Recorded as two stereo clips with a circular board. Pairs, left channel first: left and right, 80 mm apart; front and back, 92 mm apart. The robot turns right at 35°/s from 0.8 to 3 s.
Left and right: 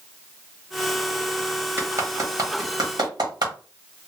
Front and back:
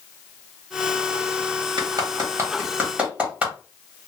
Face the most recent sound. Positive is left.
turn(degrees=-105)